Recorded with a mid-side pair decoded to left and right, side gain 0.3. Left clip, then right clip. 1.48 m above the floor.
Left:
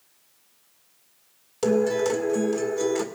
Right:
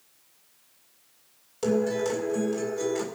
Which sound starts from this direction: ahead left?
A guitar, at 1.6 s.